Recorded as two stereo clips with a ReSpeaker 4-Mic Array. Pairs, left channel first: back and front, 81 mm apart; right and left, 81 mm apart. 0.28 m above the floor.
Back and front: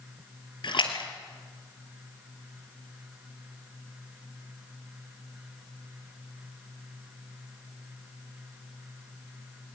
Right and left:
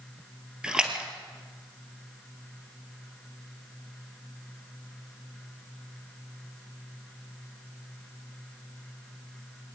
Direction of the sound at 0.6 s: 170° left.